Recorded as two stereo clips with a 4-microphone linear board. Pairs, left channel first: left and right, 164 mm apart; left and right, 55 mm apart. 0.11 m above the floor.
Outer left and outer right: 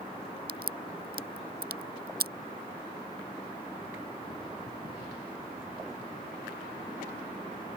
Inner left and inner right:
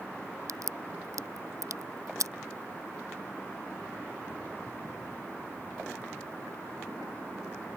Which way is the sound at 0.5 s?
75° right (ahead or behind).